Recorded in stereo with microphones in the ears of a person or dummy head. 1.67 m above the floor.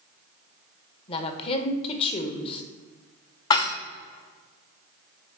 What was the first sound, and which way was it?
A woman speaking, 35° left (ahead or behind).